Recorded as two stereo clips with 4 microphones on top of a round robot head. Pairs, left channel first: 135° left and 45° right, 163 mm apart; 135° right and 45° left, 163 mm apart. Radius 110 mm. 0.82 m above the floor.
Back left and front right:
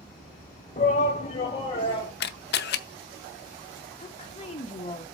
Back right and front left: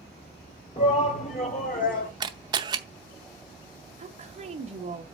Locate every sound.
0.8 s a shout: 170° left, 1.4 m; by 2.1 s 165° right, 2.5 m
2.2 s a camera shutter: 110° left, 0.7 m
4.0 s a woman speaking: 80° left, 1.2 m